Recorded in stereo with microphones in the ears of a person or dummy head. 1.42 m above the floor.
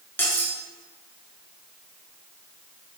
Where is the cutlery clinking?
10° left (ahead or behind), 1.1 m.